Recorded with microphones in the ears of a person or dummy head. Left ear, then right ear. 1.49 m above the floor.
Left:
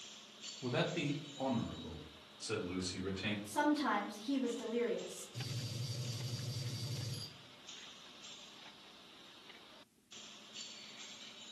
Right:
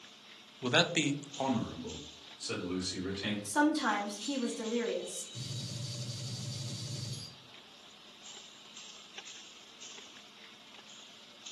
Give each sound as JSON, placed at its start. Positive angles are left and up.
{"t": 0.6, "sound": "a man speaking", "side_deg": -50, "distance_m": 0.5}
{"t": 3.5, "sound": "a woman speaking", "side_deg": -65, "distance_m": 0.8}
{"t": 5.3, "sound": "a gunshot", "side_deg": -25, "distance_m": 1.3}